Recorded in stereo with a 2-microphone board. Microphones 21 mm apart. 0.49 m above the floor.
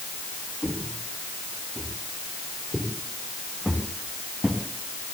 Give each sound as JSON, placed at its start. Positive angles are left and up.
{"t": 0.6, "sound": "footsteps", "side_deg": -50, "distance_m": 9.0}